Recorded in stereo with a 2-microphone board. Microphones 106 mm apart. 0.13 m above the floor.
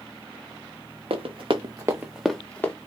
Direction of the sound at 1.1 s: 70° right (ahead or behind).